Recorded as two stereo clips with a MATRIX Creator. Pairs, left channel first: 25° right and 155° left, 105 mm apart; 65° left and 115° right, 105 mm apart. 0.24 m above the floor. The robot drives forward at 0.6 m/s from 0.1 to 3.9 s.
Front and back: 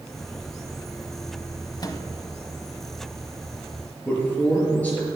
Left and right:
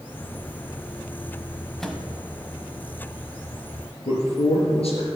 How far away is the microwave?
About 1.0 m.